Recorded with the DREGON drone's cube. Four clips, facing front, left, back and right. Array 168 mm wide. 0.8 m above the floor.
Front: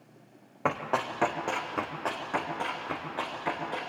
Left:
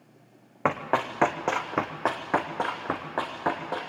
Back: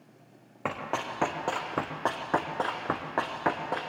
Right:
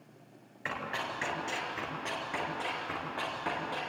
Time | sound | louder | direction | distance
0.7 | running footsteps | left 11 dB, front 3 dB | 85° left | 2.5 m